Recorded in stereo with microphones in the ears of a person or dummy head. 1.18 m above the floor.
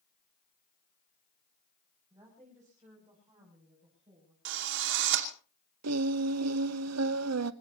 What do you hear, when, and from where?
2.1 s a woman speaking: 15° right (ahead or behind), 7 m; by 4.3 s 20° right (ahead or behind), 8 m
4.5 s a drill: 55° right (ahead or behind), 2.5 m
5.8 s singing: 75° right (ahead or behind), 0.9 m